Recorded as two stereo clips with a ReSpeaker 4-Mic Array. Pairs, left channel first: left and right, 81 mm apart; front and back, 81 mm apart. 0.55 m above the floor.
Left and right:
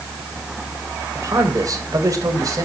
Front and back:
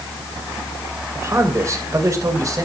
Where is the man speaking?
130° right, 2.5 m; by 2.6 s 135° right, 3.5 m.